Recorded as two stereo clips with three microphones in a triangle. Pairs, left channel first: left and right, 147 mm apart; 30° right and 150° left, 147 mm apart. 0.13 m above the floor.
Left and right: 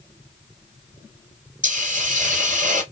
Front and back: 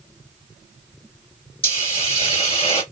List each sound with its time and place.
1.6 s a hiss: 75° right, 3 m